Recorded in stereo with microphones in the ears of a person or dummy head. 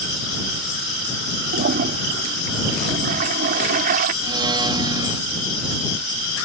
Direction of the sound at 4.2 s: 25° right (ahead or behind).